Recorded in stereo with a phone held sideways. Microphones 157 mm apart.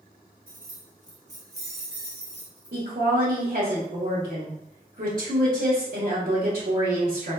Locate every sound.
0.5 s keys jangling: 65° right (ahead or behind), 0.9 m; by 2.8 s 25° right (ahead or behind), 1.6 m
2.7 s a woman speaking: 65° right (ahead or behind), 1.1 m